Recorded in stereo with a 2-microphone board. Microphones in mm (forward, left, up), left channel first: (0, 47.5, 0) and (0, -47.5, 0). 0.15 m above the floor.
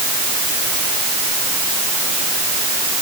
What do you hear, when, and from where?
Only background noise.